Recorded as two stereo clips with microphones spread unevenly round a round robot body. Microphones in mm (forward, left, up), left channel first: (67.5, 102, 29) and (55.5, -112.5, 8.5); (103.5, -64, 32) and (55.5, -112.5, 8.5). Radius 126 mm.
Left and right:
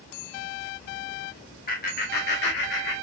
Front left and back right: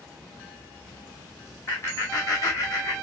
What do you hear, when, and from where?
1.7 s laughter: 115° left, 1.7 m; by 3.0 s 100° left, 2 m